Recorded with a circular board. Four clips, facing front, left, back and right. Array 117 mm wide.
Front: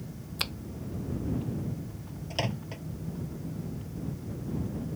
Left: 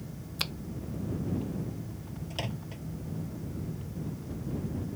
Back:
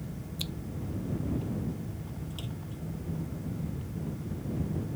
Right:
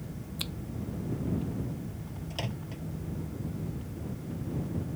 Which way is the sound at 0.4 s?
30° left.